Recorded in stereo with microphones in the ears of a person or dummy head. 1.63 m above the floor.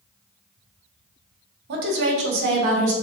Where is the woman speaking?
65° right (ahead or behind), 0.7 m; by 2.9 s 40° right (ahead or behind), 0.6 m.